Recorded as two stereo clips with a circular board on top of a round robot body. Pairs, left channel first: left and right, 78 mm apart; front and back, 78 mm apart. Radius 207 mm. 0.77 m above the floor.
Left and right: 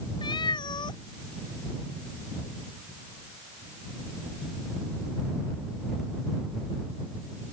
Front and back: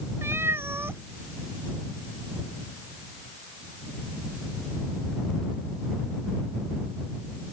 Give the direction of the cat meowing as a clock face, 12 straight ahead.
8 o'clock.